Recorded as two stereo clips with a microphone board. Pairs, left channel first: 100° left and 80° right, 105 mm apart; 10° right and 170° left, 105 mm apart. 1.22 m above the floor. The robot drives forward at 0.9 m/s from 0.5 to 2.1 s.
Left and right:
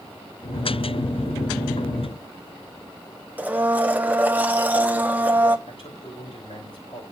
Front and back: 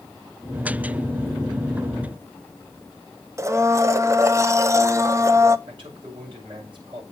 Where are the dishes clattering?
No dishes clattering in this recording.